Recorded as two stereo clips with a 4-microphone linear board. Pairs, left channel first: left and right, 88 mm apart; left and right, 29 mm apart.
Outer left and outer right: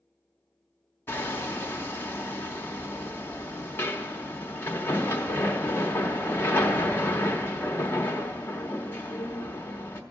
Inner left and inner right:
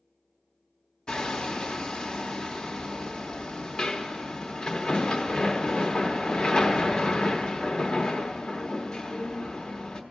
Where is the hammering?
25° left (ahead or behind), 0.9 m.